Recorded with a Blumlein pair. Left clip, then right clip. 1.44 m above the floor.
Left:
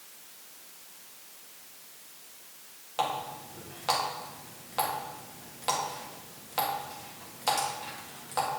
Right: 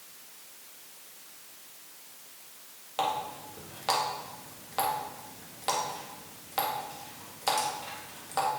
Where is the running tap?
Straight ahead, 1.6 m.